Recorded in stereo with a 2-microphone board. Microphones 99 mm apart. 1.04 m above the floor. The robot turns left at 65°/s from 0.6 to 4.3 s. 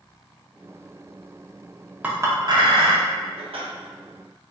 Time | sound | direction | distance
2.0 | a clink | 15° right (ahead or behind) | 0.5 m